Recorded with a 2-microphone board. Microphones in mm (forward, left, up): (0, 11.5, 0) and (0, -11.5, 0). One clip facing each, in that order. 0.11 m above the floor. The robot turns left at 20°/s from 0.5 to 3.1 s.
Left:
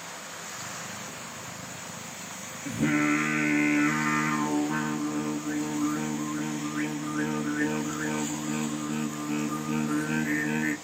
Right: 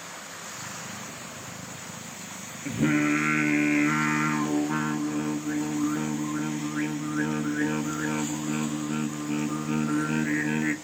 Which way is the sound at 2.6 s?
15° right (ahead or behind).